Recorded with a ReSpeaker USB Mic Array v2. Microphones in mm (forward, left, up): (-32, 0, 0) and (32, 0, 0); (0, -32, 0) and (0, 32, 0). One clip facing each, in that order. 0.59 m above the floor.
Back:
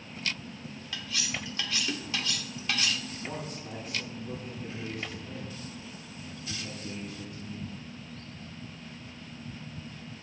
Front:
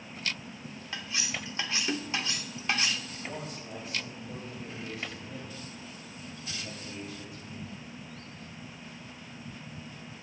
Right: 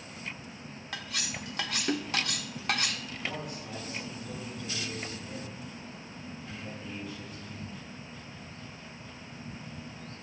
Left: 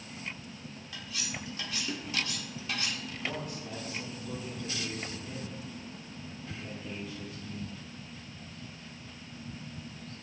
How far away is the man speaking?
About 5.5 m.